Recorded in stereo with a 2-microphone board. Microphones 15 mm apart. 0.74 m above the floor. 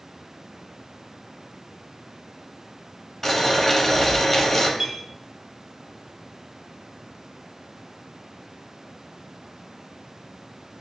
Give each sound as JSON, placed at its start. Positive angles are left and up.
{"t": 3.2, "sound": "boiling", "side_deg": 15, "distance_m": 1.0}
{"t": 4.8, "sound": "a clink", "side_deg": -75, "distance_m": 1.6}